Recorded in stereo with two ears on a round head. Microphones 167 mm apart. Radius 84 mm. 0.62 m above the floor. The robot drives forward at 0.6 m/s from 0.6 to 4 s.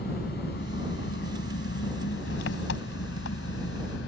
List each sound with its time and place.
0.0 s an engine running: 55° left (ahead or behind); by 4.1 s 80° left